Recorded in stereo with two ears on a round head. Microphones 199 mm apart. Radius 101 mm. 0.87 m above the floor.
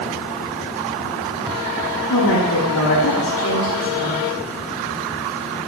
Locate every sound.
2.1 s a woman speaking: 85° left, 6 m